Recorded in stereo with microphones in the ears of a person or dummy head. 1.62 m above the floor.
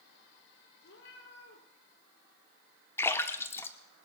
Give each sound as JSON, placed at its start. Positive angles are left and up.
{"t": 0.8, "sound": "a cat meowing", "side_deg": 65, "distance_m": 4.0}
{"t": 3.0, "sound": "a splash", "side_deg": 15, "distance_m": 1.1}